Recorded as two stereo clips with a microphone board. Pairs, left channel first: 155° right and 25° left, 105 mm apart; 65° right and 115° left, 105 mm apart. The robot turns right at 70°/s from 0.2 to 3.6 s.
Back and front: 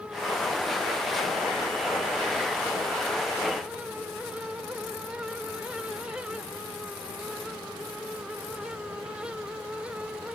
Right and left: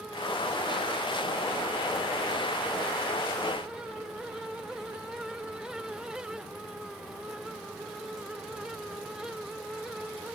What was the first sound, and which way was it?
Only background noise.